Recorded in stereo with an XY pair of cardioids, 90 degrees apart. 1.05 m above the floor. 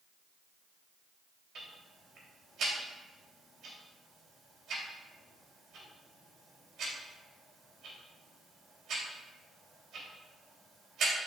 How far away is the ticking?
About 3 m.